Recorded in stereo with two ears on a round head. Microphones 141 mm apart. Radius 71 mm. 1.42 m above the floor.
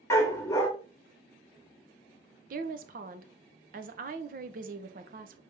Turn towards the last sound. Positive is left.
turn(degrees=-55)  # may be behind; listen again after turning